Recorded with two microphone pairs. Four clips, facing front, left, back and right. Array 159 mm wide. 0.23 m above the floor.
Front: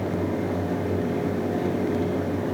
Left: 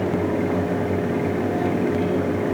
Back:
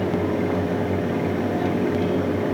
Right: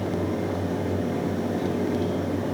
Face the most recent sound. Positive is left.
No sound to turn to.